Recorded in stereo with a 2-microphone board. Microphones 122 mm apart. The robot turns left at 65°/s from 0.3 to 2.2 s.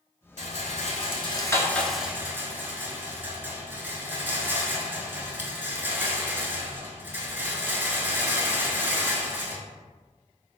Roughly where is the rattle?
Left.